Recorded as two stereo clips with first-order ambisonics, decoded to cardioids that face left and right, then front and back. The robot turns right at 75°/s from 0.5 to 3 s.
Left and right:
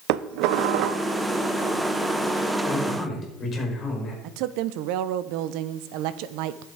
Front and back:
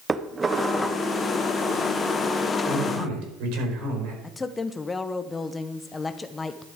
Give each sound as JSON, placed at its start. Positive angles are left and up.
{"t": 0.1, "sound": "dishes clattering", "azimuth_deg": -105, "distance_m": 0.7}
{"t": 2.6, "sound": "a man speaking", "azimuth_deg": 130, "distance_m": 4.5}
{"t": 4.2, "sound": "a woman speaking", "azimuth_deg": -75, "distance_m": 0.8}